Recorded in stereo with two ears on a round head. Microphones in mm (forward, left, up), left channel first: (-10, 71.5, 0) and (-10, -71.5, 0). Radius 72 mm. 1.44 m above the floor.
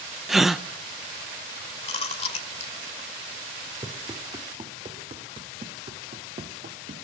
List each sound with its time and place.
0.3 s a gasp: centre (ahead or behind), 0.7 m
1.8 s chewing: 40° left (ahead or behind), 2.0 m
3.8 s running footsteps: 25° right (ahead or behind), 2.5 m; by 7.0 s 50° right (ahead or behind), 2 m